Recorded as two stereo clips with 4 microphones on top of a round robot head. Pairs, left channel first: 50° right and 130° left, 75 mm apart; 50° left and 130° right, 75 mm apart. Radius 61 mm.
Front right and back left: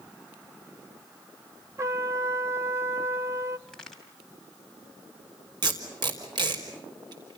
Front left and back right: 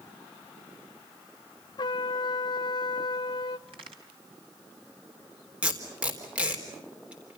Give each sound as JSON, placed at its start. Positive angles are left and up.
{"t": 1.8, "sound": "a trumpet", "azimuth_deg": 75, "distance_m": 0.8}
{"t": 3.7, "sound": "a crack", "azimuth_deg": -135, "distance_m": 4.5}
{"t": 5.6, "sound": "tape being pulled", "azimuth_deg": 155, "distance_m": 4.0}